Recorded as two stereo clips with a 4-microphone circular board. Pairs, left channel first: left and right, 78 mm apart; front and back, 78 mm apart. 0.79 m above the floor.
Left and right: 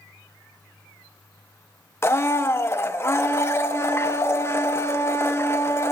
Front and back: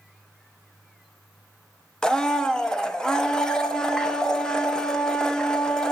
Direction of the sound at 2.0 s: 75° left.